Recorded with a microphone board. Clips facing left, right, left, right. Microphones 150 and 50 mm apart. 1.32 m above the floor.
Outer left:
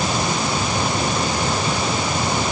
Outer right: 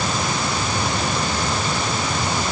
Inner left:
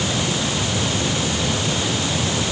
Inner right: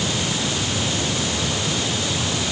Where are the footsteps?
No footsteps in this recording.